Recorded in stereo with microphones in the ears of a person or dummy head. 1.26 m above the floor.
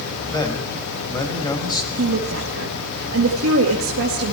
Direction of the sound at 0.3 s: 10° left (ahead or behind).